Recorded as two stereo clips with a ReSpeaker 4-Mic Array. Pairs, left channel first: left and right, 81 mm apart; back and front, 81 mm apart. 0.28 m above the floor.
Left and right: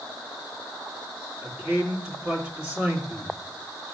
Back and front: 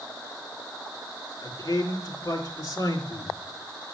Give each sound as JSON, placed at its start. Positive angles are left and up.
{"t": 1.4, "sound": "a man speaking", "azimuth_deg": -165, "distance_m": 4.0}